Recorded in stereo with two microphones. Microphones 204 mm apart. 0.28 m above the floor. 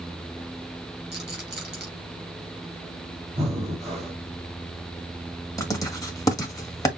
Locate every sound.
1.1 s a rattle: 55° right (ahead or behind), 2.5 m
3.4 s breathing: 30° right (ahead or behind), 2 m
5.6 s writing: 15° left (ahead or behind), 1.4 m